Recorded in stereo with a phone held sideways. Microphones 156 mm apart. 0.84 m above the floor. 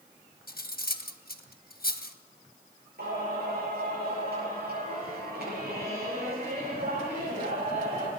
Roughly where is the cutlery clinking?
Left.